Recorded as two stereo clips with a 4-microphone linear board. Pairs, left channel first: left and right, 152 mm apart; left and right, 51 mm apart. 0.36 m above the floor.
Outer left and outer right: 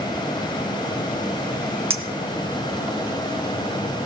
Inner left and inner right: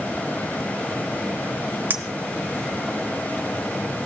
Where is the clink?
35° right (ahead or behind), 1.1 m.